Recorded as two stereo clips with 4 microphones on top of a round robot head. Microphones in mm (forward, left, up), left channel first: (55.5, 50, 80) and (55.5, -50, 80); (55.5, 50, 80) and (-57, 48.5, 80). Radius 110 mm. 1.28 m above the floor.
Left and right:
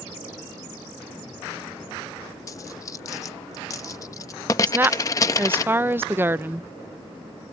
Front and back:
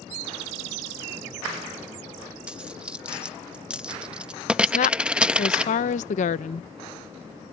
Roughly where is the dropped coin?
Behind left.